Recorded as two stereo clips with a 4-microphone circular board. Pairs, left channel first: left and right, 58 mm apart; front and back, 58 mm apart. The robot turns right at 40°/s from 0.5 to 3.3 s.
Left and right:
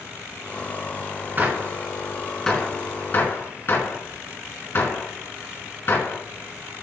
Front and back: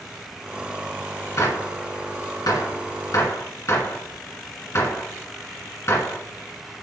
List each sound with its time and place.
1.4 s a gunshot: 35° right, 2 m; by 6.2 s 40° left, 2 m